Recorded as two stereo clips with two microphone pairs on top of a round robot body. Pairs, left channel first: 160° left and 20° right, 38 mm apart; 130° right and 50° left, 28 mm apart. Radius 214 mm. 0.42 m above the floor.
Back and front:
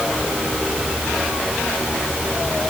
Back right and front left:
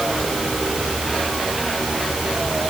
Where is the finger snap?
No finger snap in this recording.